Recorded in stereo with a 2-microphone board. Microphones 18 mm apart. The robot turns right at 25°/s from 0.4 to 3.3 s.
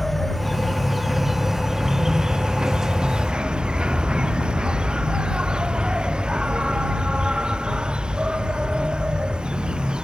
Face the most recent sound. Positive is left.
turn(degrees=-110)